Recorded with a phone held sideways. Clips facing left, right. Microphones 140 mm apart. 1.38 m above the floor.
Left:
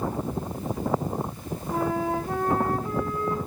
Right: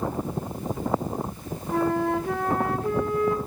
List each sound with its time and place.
1.7 s a flute: 80° right, 1.3 m